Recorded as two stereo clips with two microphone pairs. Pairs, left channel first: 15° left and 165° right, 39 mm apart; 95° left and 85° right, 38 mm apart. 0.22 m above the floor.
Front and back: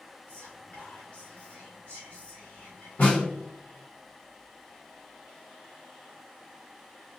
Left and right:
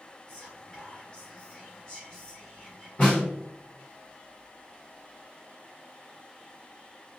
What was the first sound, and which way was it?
Whispering, 30° left.